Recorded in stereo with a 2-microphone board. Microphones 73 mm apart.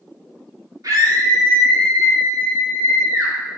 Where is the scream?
65° right (ahead or behind), 1.8 m; by 3.3 s 35° right (ahead or behind), 3 m.